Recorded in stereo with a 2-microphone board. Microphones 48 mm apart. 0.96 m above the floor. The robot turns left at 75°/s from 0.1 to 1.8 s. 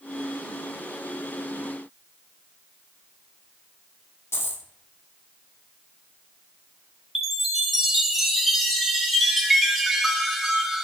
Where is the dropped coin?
70° left (ahead or behind), 0.9 m.